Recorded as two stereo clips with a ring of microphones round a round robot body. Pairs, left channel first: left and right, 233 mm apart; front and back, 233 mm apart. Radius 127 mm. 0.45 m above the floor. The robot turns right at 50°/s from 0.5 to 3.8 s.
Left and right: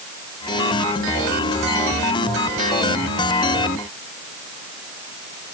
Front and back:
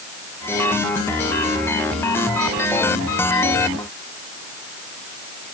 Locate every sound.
Only background noise.